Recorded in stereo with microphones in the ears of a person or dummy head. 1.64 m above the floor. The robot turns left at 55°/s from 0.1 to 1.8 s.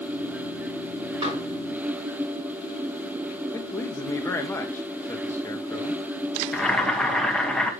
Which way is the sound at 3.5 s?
15° left (ahead or behind).